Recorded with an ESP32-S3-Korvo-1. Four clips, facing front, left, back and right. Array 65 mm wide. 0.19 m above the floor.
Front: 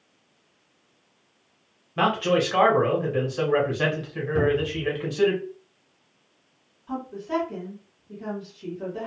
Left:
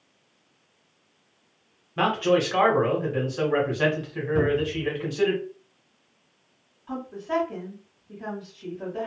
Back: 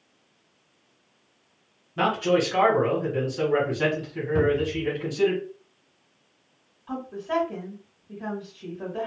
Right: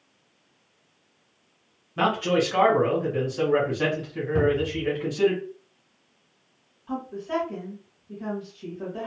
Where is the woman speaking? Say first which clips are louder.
Even, even; straight behind, 1.5 m.